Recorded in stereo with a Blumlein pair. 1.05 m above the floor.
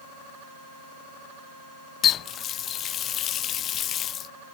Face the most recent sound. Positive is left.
turn(degrees=30)